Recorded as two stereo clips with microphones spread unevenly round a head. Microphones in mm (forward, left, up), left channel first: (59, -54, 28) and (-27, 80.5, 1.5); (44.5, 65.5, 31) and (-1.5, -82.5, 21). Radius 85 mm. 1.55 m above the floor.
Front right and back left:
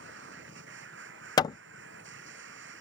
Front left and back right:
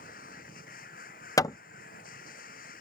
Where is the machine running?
115° left.